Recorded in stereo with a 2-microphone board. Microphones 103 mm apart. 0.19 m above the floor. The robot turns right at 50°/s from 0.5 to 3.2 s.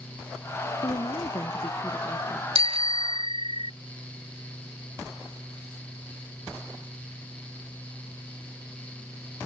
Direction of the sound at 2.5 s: 95° right.